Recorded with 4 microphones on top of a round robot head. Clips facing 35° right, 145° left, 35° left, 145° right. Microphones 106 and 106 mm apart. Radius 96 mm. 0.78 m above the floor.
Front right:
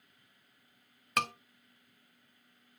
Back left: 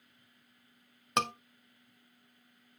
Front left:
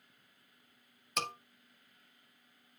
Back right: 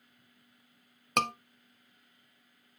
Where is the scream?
150° right, 1.8 m.